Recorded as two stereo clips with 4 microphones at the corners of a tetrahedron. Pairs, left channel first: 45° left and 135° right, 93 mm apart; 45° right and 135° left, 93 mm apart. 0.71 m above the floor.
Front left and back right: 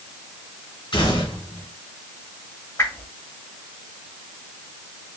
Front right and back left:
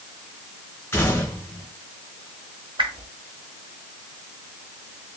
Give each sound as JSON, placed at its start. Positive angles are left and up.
{"t": 0.9, "sound": "a gunshot", "azimuth_deg": 20, "distance_m": 2.5}
{"t": 2.8, "sound": "a whoosh", "azimuth_deg": 105, "distance_m": 0.9}